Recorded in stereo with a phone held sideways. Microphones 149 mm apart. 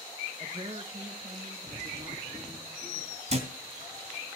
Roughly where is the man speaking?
Right.